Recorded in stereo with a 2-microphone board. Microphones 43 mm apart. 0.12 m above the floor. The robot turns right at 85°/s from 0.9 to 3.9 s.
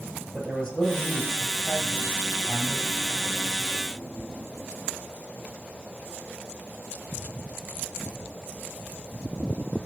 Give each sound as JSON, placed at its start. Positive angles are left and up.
{"t": 0.3, "sound": "a man speaking", "side_deg": 10, "distance_m": 2.5}